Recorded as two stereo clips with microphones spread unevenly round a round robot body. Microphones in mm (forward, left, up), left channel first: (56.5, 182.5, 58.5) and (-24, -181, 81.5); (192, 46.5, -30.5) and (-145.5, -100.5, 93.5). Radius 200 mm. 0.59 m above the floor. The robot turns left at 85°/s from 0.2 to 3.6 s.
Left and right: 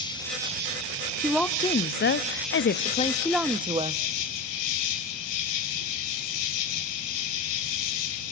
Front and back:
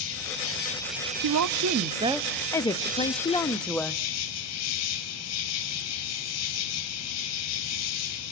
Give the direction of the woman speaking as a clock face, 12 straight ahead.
6 o'clock.